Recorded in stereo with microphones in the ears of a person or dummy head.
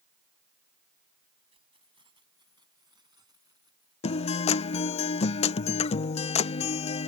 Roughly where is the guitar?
Left.